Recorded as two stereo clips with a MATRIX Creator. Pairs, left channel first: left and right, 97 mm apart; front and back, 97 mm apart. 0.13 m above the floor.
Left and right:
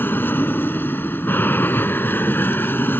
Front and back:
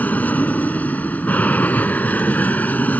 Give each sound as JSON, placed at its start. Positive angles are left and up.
{"t": 0.0, "sound": "an aircraft", "azimuth_deg": 50}